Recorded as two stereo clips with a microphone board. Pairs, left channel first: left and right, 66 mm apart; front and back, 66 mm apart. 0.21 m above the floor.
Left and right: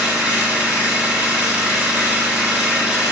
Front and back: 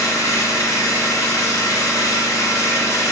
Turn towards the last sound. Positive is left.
turn(degrees=-25)